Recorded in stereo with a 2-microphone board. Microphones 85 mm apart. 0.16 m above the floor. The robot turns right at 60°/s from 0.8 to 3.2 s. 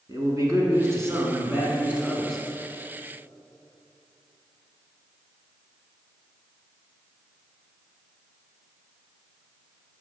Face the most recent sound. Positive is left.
turn(degrees=55)